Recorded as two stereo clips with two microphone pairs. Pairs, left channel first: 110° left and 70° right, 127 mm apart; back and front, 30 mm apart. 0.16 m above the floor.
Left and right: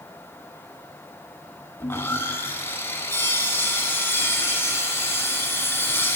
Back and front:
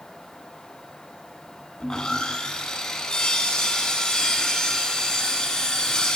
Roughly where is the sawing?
Behind left.